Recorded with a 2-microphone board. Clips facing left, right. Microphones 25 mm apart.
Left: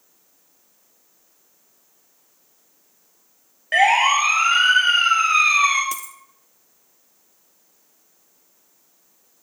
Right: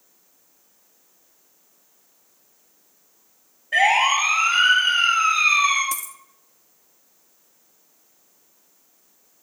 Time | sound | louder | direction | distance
3.7 | a siren | left 2 dB | 80° left | 5 m
5.9 | a dropped coin | even | 20° left (ahead or behind) | 1.0 m